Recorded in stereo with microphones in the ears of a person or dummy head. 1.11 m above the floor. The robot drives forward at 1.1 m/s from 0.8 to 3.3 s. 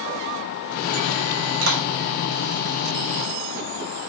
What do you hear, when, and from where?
1.6 s a clap: 70° right (ahead or behind), 3 m; by 1.8 s 65° right (ahead or behind), 3 m